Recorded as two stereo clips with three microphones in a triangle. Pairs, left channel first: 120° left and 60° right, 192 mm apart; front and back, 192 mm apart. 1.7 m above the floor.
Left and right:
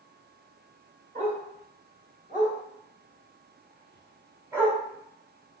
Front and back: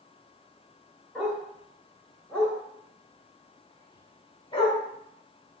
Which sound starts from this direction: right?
A dog barking, at 1.1 s.